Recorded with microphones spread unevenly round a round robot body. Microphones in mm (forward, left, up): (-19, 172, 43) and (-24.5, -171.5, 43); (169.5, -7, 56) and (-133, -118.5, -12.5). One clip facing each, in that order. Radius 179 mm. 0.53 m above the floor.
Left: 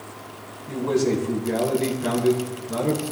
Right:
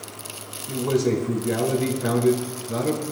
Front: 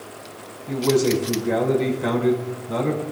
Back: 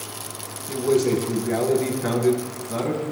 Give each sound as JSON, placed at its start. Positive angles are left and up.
{"t": 0.7, "sound": "a man speaking", "azimuth_deg": 5, "distance_m": 5.0}